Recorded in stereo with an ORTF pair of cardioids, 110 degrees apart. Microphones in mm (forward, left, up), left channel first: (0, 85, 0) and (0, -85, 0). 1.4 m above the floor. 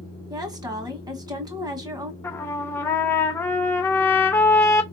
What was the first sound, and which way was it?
A woman speaking, 25° right.